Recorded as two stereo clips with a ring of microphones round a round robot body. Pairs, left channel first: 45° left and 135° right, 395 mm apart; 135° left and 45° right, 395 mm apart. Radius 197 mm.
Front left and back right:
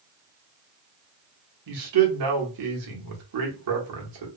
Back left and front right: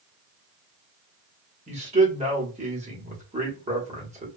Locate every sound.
1.7 s a man speaking: 115° right, 1.2 m